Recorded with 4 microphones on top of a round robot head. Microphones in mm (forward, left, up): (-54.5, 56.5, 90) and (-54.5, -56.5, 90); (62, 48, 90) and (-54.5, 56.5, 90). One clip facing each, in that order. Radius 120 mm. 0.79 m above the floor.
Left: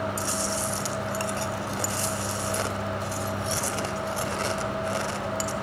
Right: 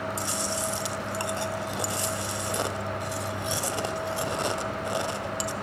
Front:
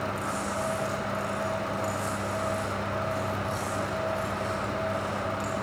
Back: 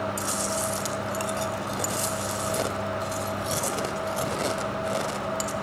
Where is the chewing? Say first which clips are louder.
Left 2 dB, back 1 dB; 160° right, 1.9 m.